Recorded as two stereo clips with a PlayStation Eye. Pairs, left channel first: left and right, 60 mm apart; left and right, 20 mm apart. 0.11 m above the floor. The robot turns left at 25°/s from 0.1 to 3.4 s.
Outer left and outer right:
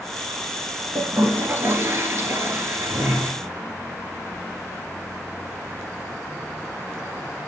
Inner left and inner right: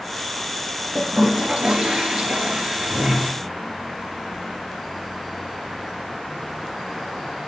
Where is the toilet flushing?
50° right, 2.5 m; by 3.3 s 110° right, 2.5 m.